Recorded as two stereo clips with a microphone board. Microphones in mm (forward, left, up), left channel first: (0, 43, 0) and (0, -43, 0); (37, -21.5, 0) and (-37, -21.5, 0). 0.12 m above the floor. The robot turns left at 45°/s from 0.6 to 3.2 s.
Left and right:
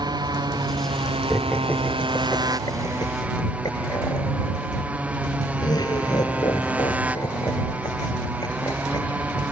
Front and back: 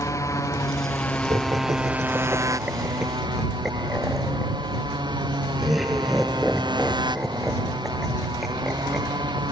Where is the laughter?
175° left; by 9.4 s 90° left.